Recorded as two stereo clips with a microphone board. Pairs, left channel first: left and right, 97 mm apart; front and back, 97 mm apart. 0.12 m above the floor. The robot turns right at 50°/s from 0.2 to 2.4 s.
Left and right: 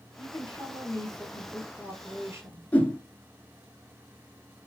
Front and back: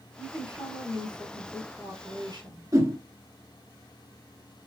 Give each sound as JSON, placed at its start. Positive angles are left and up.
{"t": 0.2, "sound": "a woman speaking", "azimuth_deg": 105, "distance_m": 2.5}
{"t": 2.7, "sound": "a whoosh", "azimuth_deg": 155, "distance_m": 1.3}